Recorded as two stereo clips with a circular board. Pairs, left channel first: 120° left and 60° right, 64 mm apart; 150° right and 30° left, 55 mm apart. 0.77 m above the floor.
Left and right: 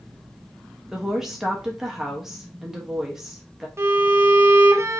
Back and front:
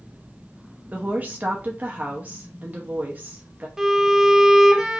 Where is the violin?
45° right, 0.7 m.